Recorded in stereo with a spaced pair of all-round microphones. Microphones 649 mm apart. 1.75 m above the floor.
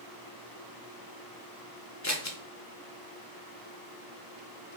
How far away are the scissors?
About 0.7 m.